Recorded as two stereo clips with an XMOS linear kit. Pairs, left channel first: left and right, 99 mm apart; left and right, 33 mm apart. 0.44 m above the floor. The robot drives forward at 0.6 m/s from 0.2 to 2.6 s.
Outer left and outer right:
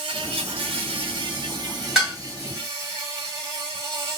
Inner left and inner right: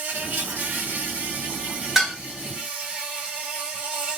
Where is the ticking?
I don't hear ticking.